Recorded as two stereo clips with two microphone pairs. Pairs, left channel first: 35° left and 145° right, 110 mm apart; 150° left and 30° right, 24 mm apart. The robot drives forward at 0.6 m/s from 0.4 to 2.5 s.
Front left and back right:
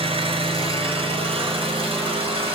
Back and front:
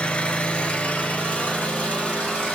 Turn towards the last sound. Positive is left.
turn(degrees=-175)